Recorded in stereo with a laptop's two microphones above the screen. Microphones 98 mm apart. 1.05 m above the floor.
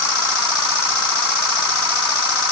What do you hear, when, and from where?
Only background noise.